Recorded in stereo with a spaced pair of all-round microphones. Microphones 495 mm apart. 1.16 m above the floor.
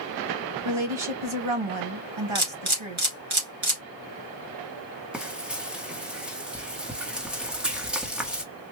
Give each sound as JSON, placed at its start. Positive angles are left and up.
{"t": 0.7, "sound": "a woman speaking", "side_deg": -75, "distance_m": 1.1}
{"t": 2.4, "sound": "a camera shutter", "side_deg": -75, "distance_m": 1.5}
{"t": 5.1, "sound": "frying", "side_deg": 0, "distance_m": 0.8}